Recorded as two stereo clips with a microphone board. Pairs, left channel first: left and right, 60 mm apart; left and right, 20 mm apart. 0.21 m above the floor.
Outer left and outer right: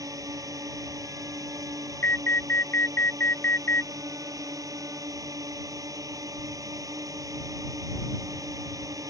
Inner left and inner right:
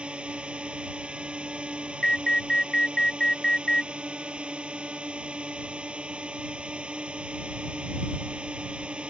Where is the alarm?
40° left (ahead or behind).